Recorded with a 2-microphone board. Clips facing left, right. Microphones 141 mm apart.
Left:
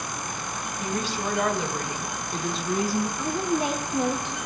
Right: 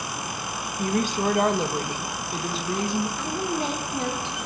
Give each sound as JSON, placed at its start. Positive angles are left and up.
{"t": 0.8, "sound": "a woman speaking", "side_deg": -55, "distance_m": 1.0}
{"t": 3.2, "sound": "a woman speaking", "side_deg": 15, "distance_m": 0.8}